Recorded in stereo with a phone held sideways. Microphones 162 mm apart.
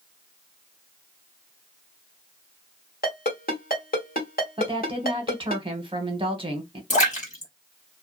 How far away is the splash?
About 1.1 m.